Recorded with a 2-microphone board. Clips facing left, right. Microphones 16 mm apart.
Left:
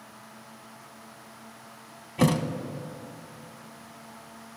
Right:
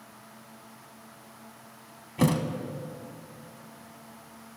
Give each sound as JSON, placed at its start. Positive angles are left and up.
{"t": 2.2, "sound": "a thud", "side_deg": 10, "distance_m": 0.6}